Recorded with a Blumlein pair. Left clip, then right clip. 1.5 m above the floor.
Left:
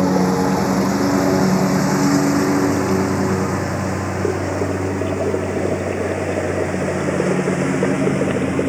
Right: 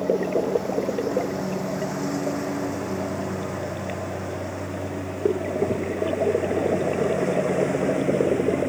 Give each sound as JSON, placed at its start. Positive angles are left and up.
{"t": 0.0, "sound": "a lawn mower", "azimuth_deg": 35}